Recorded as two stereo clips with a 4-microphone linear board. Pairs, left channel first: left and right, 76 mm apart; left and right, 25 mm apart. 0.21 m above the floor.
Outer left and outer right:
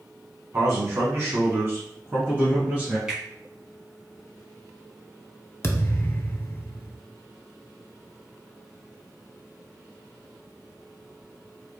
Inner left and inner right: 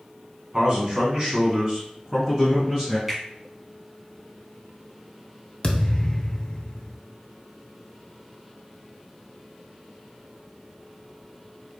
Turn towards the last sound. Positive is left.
turn(degrees=35)  # may be behind; listen again after turning